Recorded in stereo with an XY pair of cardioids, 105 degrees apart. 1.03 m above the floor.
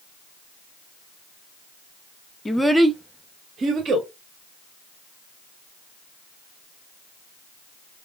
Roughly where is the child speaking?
Ahead.